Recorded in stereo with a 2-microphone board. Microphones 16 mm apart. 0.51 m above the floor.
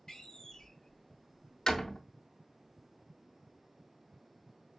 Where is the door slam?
35° left (ahead or behind), 0.6 m.